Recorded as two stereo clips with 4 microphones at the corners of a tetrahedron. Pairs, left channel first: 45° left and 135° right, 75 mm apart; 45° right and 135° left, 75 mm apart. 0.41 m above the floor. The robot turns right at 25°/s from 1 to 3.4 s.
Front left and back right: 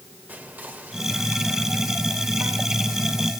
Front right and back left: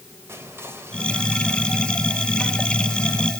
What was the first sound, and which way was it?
Whispering, 170° left.